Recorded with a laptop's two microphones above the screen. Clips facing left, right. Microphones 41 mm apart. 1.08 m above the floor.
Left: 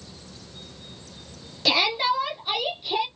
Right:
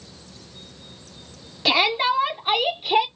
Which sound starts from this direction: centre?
A shout, at 1.6 s.